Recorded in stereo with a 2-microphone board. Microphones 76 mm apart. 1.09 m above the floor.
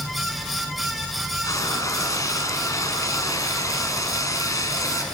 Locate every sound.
1.4 s frying: 45° left (ahead or behind), 5.5 m